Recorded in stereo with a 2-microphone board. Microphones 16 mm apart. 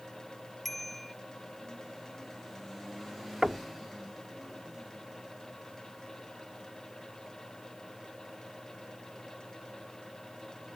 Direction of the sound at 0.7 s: 15° left (ahead or behind).